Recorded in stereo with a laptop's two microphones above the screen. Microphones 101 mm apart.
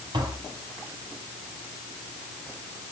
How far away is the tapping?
About 3 m.